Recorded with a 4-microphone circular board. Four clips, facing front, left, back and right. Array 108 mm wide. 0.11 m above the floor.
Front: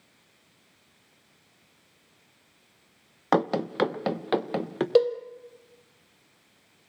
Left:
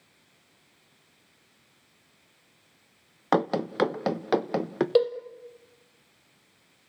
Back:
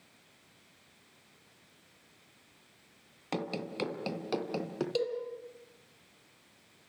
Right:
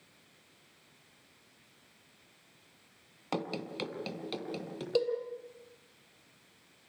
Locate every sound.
3.3 s running footsteps: 45° left, 1.2 m; by 4.8 s 65° left, 2 m
5.0 s a cowbell: 35° left, 2.5 m